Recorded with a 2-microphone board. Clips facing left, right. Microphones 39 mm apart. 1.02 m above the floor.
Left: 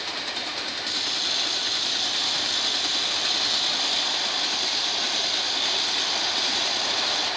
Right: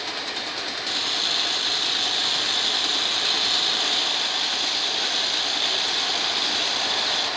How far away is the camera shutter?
About 0.6 m.